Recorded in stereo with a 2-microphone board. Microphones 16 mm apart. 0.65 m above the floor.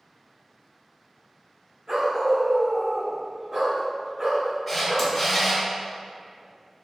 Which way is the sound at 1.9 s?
30° right (ahead or behind).